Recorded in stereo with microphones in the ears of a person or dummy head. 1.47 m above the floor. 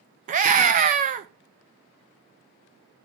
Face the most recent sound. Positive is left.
turn(degrees=-35)  # may be behind; listen again after turning